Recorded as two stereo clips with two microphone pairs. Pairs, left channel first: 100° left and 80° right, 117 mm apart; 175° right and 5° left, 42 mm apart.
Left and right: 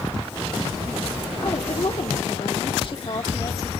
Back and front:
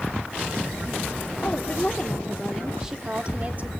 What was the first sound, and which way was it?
A woman speaking, 135° left.